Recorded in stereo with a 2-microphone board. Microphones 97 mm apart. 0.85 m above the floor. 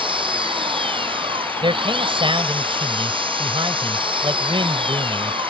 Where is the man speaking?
65° right (ahead or behind).